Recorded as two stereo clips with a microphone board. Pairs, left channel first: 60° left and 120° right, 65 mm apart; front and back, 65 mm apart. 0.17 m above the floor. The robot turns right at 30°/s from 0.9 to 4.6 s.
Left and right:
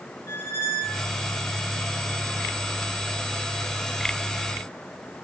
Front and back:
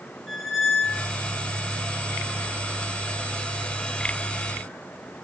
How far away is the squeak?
About 0.8 m.